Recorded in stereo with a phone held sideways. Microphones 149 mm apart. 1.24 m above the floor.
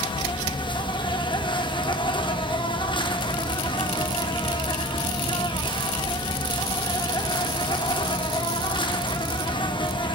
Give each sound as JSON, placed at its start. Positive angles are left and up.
{"t": 0.0, "sound": "an insect", "side_deg": 35, "distance_m": 1.0}